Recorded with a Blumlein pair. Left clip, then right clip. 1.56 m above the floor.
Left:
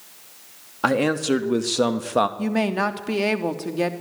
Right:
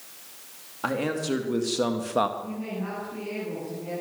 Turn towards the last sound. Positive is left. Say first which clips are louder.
# left 12 dB
turn(degrees=45)